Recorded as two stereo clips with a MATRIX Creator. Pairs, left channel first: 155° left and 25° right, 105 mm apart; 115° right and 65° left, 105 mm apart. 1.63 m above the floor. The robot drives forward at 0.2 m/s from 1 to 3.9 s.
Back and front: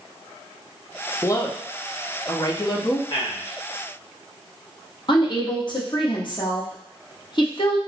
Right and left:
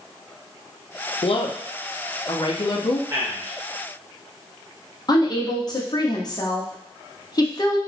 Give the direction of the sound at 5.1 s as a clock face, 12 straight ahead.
5 o'clock.